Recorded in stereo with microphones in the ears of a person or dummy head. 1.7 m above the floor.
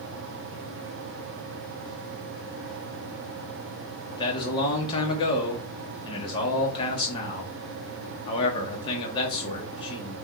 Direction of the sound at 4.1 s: 25° left (ahead or behind).